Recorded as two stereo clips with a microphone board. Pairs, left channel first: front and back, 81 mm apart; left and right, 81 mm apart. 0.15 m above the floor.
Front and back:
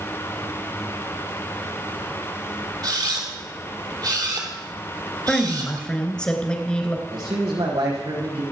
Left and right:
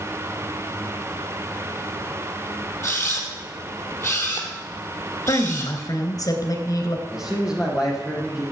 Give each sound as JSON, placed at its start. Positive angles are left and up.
{"t": 2.8, "sound": "a camera shutter", "azimuth_deg": 150, "distance_m": 3.0}
{"t": 5.3, "sound": "a woman speaking", "azimuth_deg": 75, "distance_m": 2.5}
{"t": 7.1, "sound": "a man speaking", "azimuth_deg": -170, "distance_m": 5.0}